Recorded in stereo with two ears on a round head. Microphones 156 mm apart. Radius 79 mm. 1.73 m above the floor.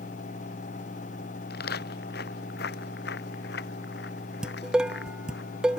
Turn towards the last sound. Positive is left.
turn(degrees=-5)  # may be behind; listen again after turning